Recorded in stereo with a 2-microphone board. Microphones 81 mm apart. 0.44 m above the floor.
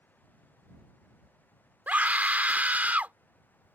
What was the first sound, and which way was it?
A scream, 20° right (ahead or behind).